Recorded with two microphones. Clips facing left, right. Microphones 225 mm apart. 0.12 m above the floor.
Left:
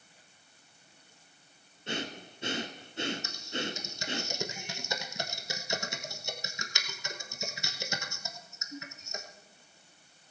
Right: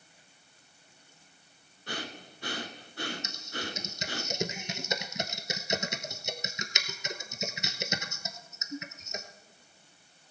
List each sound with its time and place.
1.9 s breathing: 25° left (ahead or behind), 1.1 m
3.2 s typing on a keyboard: 20° right (ahead or behind), 1.0 m